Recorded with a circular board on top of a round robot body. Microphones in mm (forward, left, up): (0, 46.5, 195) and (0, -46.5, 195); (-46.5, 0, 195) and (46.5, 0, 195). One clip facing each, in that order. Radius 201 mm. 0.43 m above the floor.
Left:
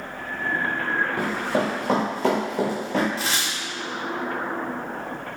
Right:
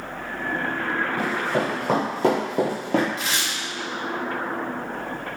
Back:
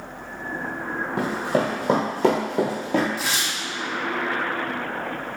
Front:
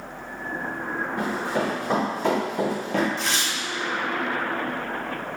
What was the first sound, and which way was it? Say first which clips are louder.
Running footsteps: even, back 4 dB; 165° left.